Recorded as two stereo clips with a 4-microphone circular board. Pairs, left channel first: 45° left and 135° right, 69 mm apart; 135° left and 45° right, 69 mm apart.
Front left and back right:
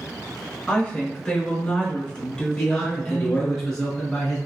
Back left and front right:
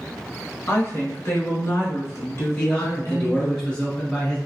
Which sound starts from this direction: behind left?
A woman speaking, at 0.7 s.